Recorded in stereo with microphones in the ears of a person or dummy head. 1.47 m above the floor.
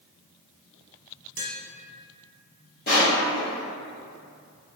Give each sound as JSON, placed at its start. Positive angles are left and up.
{"t": 1.4, "sound": "tapping", "side_deg": -75, "distance_m": 0.9}
{"t": 2.9, "sound": "crushing", "side_deg": 45, "distance_m": 0.8}